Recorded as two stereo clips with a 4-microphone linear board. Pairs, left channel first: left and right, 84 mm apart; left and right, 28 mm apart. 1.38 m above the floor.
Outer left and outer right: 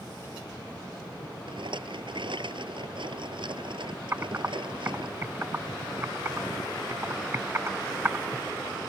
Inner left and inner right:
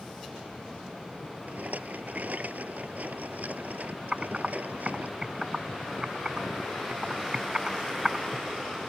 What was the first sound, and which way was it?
A rattle, 75° right (ahead or behind).